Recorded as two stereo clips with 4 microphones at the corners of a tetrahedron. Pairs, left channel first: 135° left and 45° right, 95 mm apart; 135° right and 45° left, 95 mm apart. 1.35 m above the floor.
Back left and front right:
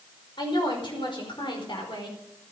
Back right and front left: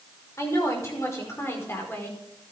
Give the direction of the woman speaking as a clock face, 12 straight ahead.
6 o'clock.